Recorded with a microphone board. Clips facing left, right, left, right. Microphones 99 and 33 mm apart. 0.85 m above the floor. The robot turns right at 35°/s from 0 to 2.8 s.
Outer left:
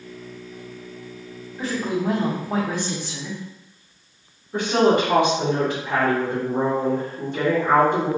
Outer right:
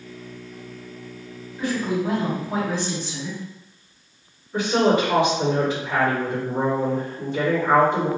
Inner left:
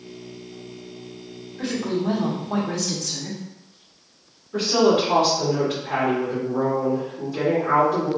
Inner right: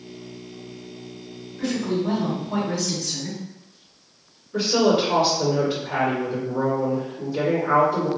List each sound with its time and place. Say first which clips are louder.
1.6 s a woman speaking: outer right 1 dB, inner right 1 dB; 35° left, 1.3 m; by 3.4 s 75° left, 1.3 m
4.5 s a woman speaking: outer left 1 dB, inner left 1 dB; 55° left (ahead or behind), 1.6 m